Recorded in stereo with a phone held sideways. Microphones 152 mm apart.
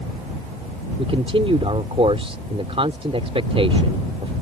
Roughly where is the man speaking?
Right.